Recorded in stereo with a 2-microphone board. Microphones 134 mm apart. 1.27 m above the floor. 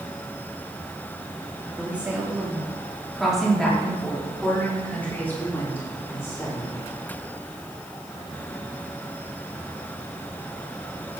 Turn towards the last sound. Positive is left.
turn(degrees=20)  # may be behind; listen again after turning